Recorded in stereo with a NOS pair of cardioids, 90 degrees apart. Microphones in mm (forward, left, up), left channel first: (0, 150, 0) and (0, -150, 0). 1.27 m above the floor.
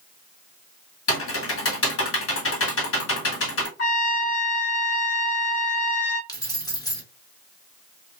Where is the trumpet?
65° left, 1.5 m.